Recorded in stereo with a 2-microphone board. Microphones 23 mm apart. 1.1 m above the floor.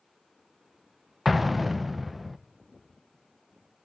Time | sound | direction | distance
1.2 | an explosion | centre (ahead or behind) | 0.6 m